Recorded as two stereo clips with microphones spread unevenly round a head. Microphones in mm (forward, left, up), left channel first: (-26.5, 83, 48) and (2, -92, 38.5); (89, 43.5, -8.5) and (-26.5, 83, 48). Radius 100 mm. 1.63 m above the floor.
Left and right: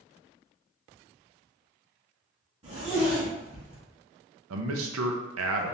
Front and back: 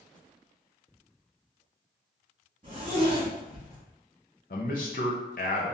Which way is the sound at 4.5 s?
70° right.